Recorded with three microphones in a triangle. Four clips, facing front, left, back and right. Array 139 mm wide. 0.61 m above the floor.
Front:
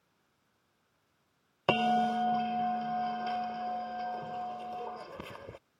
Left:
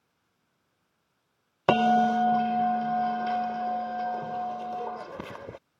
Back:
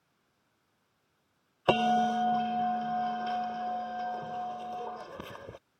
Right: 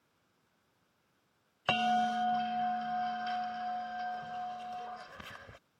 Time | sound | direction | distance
1.7 | a bell | 95° left | ?